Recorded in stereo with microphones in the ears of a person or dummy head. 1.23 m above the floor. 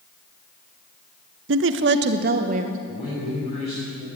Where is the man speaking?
50° left (ahead or behind), 4.5 m.